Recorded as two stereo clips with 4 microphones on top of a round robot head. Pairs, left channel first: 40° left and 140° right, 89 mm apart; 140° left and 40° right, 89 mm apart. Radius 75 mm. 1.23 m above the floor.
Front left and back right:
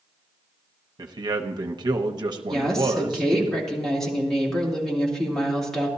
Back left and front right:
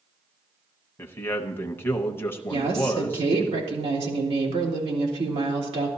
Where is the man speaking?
160° right, 0.9 m.